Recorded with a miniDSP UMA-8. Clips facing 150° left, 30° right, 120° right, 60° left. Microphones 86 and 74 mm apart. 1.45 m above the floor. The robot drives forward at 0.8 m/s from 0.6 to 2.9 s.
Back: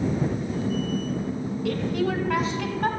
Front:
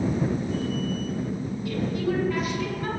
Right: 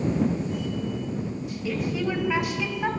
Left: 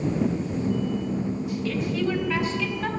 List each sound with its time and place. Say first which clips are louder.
1.6 s a woman speaking: back 1 dB, even; 160° left, 2.5 m; by 2.9 s 165° left, 3.5 m